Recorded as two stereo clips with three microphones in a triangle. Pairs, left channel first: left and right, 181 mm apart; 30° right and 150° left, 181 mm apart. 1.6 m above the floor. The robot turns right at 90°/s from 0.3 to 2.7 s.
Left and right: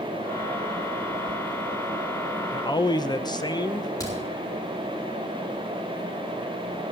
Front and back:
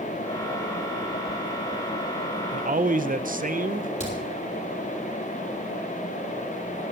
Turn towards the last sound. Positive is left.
turn(degrees=20)